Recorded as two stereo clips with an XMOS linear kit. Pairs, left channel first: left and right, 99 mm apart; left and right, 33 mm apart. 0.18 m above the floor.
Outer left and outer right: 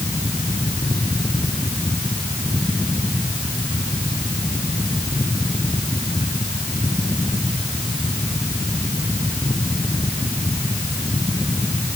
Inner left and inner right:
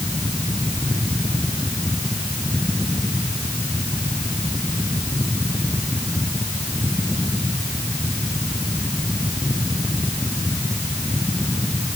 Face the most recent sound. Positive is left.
No sound to turn to.